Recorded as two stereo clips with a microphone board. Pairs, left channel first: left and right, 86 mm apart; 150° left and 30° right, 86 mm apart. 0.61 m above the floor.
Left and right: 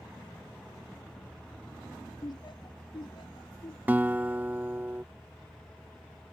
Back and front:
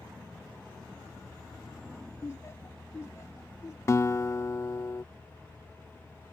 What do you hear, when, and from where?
2.2 s laughter: 105° left; by 3.8 s 95° left
3.9 s a guitar: 160° right